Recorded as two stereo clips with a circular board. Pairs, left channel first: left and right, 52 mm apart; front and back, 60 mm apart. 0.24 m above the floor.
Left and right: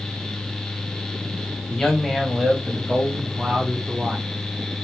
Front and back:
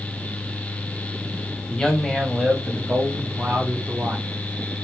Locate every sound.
1.7 s a man speaking: 30° left, 0.9 m; by 4.3 s 135° right, 1.5 m